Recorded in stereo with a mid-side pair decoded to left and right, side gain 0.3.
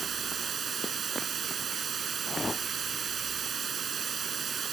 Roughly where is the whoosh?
Ahead left.